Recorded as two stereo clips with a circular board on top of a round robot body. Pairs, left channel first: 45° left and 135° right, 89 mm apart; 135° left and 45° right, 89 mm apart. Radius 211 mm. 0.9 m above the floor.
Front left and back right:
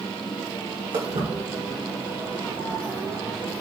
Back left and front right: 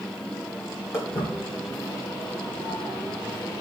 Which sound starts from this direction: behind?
Footsteps, at 0.9 s.